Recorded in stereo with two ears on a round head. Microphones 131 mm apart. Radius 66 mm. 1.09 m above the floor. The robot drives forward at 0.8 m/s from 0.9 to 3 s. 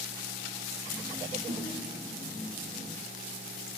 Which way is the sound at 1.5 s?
65° right (ahead or behind).